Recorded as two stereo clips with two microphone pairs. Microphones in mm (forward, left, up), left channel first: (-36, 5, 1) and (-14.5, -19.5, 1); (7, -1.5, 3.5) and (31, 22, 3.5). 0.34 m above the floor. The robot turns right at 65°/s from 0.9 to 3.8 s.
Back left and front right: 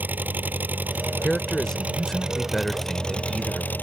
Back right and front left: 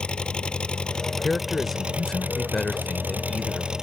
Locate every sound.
0.0 s an engine running: 70° right; by 3.8 s 115° left
1.2 s a man speaking: 130° left; by 3.7 s 65° right